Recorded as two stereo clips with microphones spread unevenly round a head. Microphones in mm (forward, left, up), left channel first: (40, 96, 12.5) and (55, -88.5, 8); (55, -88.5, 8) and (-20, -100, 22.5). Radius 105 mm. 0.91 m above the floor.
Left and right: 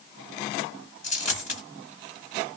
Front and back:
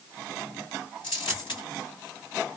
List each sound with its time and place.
1.0 s a dropped coin: 50° left, 1.5 m